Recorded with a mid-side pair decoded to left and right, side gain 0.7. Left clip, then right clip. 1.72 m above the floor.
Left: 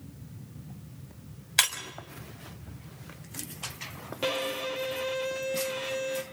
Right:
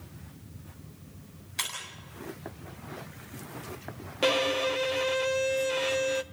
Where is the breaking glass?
55° left, 6 m.